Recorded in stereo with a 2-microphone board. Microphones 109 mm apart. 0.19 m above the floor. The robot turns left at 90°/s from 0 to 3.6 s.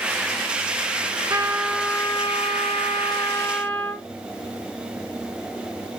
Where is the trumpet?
140° right, 0.9 m; by 4.0 s 15° left, 0.9 m.